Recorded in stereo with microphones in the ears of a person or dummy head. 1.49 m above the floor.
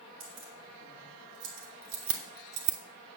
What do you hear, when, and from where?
0.2 s keys jangling: 65° right (ahead or behind), 4 m; by 2.8 s 60° right (ahead or behind), 1.2 m